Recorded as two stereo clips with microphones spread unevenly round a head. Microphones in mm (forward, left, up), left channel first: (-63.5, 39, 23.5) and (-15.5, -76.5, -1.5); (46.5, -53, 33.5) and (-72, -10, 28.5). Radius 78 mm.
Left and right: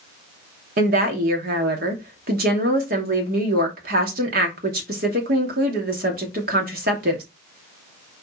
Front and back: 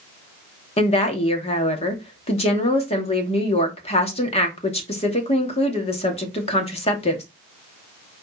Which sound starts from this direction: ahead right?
A woman speaking, at 0.8 s.